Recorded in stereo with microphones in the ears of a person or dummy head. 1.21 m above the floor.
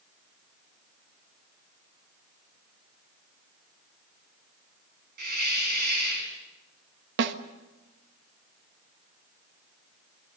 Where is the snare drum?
65° right (ahead or behind), 1.3 m.